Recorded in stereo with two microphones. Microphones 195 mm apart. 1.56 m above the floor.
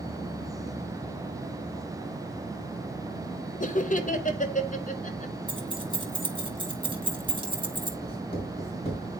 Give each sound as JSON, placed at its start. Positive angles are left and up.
{"t": 3.6, "sound": "laughter", "side_deg": 40, "distance_m": 0.8}
{"t": 5.5, "sound": "keys jangling", "side_deg": -25, "distance_m": 1.1}
{"t": 8.0, "sound": "writing", "side_deg": 30, "distance_m": 4.5}